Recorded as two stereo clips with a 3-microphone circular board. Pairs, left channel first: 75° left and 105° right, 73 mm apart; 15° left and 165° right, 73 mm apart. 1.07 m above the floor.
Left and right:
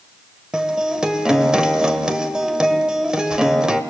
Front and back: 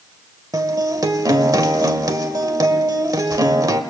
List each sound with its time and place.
0.5 s a guitar: 175° left, 1.2 m